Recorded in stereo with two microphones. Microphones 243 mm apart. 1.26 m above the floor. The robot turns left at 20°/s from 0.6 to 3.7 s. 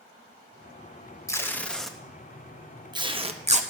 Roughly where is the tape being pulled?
Centre.